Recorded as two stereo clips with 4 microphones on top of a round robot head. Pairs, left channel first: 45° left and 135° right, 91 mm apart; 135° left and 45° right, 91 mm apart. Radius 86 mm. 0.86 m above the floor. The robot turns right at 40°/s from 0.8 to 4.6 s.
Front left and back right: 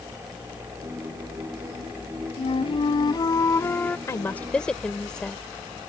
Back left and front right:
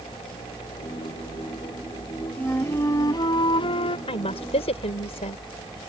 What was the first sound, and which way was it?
A flute, 60° left.